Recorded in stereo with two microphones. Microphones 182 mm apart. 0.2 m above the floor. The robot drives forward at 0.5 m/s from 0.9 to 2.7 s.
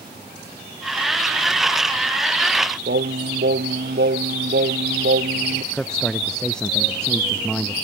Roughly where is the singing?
Right.